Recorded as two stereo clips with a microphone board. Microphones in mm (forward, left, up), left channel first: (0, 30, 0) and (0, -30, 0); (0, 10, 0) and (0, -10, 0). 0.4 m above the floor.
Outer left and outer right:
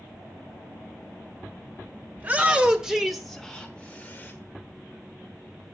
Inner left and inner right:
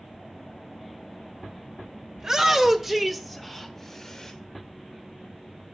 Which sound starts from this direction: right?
A shout, at 2.2 s.